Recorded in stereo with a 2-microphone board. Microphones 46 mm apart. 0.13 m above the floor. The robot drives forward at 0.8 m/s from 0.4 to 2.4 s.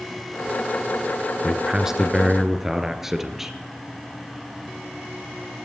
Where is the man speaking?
15° right (ahead or behind), 1.3 m; by 3.6 s 10° right (ahead or behind), 1.8 m.